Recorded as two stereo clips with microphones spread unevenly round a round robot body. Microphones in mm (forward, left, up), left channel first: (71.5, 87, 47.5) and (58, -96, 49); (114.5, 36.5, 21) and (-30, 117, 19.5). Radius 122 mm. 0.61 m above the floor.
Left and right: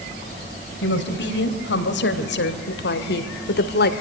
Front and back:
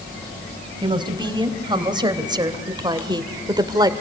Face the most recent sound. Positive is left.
turn(degrees=90)